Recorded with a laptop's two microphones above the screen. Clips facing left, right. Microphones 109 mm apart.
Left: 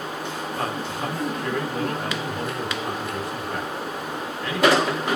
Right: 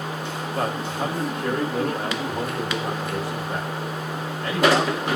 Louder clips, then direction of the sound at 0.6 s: Right 4 dB; 70° right (ahead or behind).